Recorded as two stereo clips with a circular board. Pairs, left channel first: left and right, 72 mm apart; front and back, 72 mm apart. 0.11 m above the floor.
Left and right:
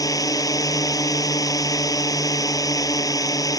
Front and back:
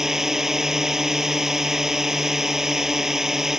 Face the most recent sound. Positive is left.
turn(degrees=100)